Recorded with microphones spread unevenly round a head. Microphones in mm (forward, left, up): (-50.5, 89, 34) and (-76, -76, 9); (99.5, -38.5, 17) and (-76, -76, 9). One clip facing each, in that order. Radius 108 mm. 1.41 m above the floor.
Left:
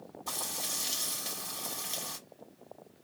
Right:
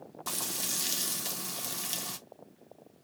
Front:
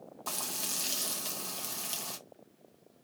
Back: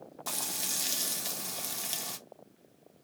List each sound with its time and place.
0.3 s frying: 85° right, 1.0 m